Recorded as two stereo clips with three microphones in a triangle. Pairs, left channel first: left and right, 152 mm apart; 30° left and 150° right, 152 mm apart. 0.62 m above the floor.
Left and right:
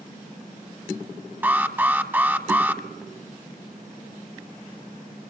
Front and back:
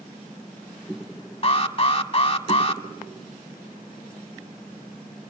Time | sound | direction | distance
1.4 | an alarm | 15° right | 1.0 m